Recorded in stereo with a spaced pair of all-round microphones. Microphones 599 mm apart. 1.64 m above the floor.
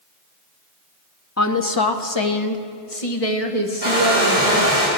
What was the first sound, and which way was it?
A woman speaking, 25° left (ahead or behind).